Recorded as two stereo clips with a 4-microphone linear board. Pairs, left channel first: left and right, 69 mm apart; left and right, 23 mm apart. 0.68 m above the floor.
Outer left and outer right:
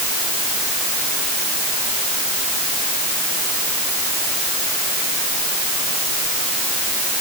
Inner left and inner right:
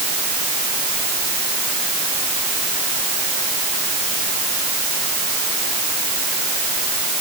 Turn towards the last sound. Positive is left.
No sound to turn to.